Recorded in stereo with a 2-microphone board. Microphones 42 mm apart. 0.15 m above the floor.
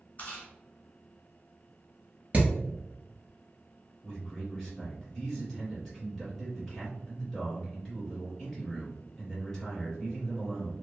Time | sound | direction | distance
0.2 | chewing | 35° left (ahead or behind) | 1.5 m
2.3 | hammering | 35° right (ahead or behind) | 1.3 m
4.0 | a man speaking | 10° left (ahead or behind) | 1.9 m